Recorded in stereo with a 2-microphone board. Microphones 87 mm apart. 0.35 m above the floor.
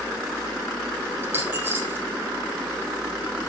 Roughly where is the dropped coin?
Right.